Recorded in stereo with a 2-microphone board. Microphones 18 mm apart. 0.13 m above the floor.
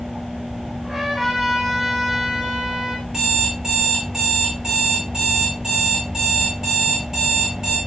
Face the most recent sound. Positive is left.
turn(degrees=-30)  # may be behind; listen again after turning